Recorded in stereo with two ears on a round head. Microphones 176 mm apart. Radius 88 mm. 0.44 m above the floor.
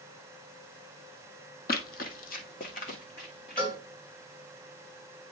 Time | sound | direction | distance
1.7 | running footsteps | 50° left (ahead or behind) | 1.1 m
3.6 | a cowbell | 25° left (ahead or behind) | 2.5 m